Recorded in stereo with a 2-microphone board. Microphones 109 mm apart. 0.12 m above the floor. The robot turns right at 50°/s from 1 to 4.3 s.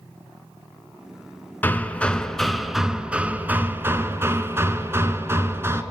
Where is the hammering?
15° left (ahead or behind), 0.6 m; by 5.8 s 25° right (ahead or behind), 0.6 m.